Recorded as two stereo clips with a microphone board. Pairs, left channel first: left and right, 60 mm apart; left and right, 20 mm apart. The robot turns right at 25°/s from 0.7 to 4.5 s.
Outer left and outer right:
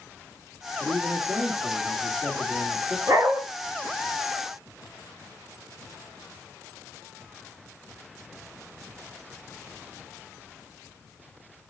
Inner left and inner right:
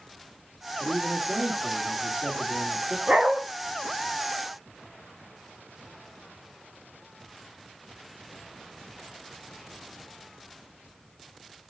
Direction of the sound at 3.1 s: 60° right (ahead or behind).